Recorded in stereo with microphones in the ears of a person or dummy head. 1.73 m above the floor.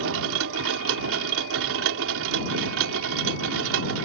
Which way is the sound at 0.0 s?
80° right.